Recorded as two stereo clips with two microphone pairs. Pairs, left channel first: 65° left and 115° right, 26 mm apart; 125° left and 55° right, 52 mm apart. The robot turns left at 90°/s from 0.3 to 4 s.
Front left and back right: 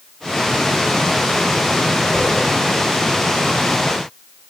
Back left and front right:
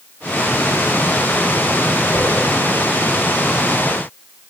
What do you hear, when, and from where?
2.1 s a whoosh: 110° left, 3.5 m; by 2.3 s 95° left, 3.5 m